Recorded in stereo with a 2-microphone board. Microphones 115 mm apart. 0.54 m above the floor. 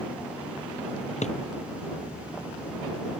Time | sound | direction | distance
1.2 | a drawer | 85° left | ?